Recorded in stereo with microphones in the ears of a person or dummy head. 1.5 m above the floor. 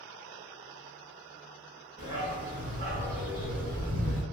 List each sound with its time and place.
2.0 s a dog barking: 20° right (ahead or behind), 1.6 m; by 4.2 s 40° right (ahead or behind), 1.5 m